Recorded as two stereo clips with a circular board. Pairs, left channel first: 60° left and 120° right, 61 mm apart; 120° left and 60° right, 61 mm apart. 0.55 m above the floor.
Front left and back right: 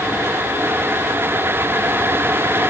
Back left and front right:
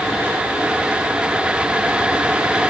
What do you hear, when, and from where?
Only background noise.